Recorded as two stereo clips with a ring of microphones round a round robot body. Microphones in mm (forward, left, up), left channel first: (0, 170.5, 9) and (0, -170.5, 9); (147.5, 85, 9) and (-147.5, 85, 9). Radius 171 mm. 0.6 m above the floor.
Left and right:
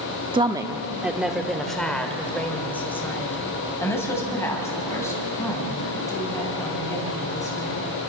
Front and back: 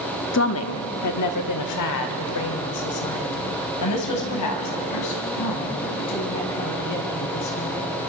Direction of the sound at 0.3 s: 20° right.